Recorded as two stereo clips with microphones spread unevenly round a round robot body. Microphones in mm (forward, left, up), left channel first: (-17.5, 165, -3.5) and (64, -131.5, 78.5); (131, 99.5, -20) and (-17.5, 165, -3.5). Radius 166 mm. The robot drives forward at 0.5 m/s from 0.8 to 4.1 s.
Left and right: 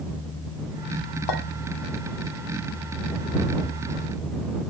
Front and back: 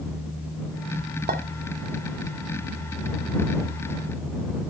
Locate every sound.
1.3 s a clink: 125° left, 1.4 m